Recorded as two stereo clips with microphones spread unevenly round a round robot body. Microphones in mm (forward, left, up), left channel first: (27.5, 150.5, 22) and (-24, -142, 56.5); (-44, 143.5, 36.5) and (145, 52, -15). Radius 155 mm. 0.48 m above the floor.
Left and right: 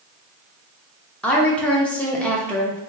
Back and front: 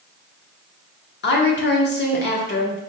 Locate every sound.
1.2 s a woman speaking: 155° left, 0.8 m